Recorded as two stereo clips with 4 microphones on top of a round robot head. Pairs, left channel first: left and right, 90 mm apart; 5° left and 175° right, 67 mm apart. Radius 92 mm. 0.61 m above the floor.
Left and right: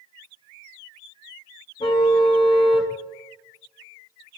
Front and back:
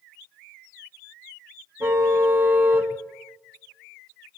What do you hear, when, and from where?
1.8 s a car horn: 125° left, 3.5 m